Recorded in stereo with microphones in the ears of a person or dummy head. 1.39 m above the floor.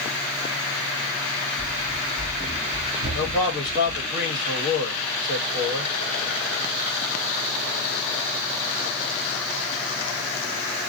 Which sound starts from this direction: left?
A man speaking, at 3.1 s.